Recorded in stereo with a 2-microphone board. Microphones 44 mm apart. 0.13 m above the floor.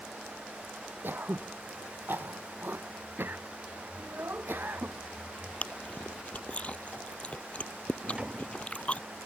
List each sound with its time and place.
1.0 s throat clearing: 50° right (ahead or behind)
4.0 s a child speaking: 60° right (ahead or behind)
5.6 s chewing: 30° left (ahead or behind)
8.0 s a drawer: 25° right (ahead or behind)